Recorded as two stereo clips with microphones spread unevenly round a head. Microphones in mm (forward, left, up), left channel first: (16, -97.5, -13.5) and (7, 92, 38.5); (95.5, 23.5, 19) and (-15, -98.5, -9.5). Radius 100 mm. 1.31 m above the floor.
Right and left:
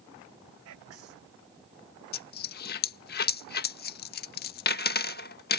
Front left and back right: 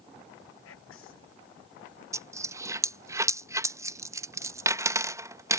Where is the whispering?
75° left.